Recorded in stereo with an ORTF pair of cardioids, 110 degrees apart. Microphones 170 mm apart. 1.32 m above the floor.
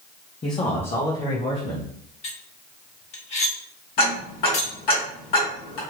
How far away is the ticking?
About 2.5 m.